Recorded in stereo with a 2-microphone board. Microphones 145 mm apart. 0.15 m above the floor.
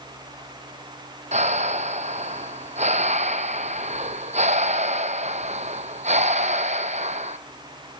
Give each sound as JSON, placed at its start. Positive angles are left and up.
{"t": 1.3, "sound": "breathing", "side_deg": -55, "distance_m": 0.9}